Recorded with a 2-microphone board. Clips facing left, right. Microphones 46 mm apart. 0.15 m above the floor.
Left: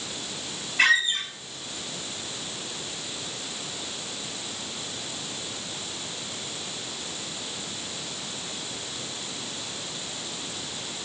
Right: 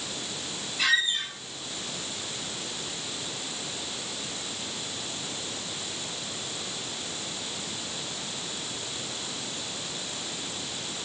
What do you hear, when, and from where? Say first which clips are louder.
0.8 s a squeak: left 4 dB; 65° left (ahead or behind), 1.7 m